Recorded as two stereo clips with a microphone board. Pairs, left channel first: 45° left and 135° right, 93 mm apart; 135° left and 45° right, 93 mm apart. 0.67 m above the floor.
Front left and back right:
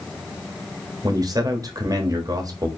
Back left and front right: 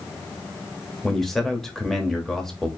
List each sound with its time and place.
1.0 s a man speaking: 140° right, 1.0 m